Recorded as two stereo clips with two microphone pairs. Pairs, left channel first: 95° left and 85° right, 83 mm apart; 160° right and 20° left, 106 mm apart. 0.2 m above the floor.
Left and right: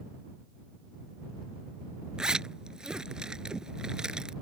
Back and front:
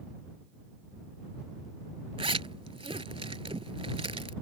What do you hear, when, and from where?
2.2 s a zipper: 5° right